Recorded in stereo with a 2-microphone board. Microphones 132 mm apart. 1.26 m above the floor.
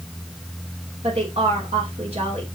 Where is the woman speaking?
55° right (ahead or behind), 3 m.